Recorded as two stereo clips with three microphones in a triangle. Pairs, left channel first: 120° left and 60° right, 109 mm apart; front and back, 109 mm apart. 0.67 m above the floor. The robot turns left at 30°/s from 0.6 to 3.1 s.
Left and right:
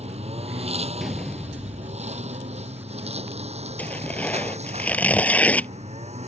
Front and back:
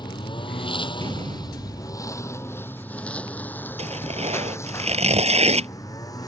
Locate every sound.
0.0 s a lawn mower: 45° right; by 6.3 s 55° right
1.0 s a door slam: 150° right; by 2.3 s 170° left
3.8 s tearing paper: 165° right